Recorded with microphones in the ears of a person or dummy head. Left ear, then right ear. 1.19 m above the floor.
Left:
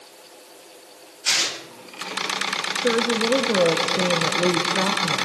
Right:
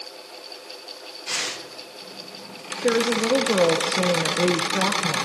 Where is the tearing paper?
75° left (ahead or behind), 9 m.